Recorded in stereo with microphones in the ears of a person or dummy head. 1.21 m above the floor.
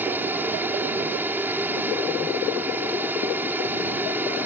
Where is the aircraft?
10° right (ahead or behind).